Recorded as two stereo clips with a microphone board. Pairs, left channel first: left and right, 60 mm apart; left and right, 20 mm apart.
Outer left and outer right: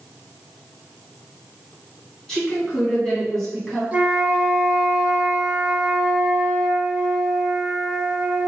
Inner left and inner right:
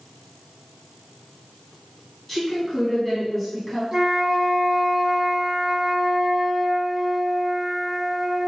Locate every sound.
2.3 s a woman speaking: 10° left (ahead or behind), 1.4 m
3.9 s a flute: 25° right (ahead or behind), 0.6 m